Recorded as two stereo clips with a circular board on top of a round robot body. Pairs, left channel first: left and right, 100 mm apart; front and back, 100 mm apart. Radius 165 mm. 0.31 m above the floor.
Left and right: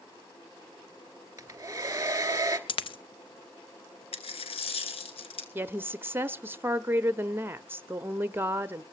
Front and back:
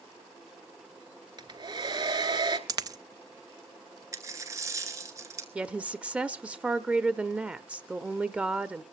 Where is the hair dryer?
150° right, 2.5 m.